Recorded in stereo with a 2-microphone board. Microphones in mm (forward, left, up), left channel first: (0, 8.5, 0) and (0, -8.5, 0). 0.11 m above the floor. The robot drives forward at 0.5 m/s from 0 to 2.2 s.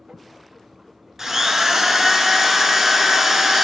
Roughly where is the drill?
Right.